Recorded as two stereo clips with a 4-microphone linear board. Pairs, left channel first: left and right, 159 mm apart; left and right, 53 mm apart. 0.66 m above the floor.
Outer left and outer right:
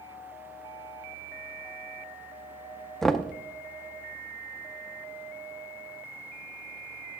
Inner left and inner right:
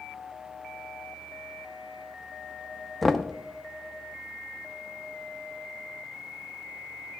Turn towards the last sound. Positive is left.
turn(degrees=0)  # may be behind; listen again after turning